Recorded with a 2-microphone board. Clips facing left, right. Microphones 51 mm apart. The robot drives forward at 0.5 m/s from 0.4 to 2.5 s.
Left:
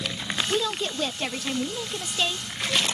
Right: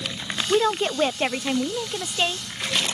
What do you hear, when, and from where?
0.5 s a woman speaking: 45° right (ahead or behind); by 2.5 s 25° right (ahead or behind)